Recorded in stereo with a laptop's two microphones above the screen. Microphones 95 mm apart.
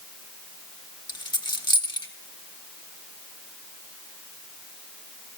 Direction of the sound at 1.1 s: 50° left (ahead or behind).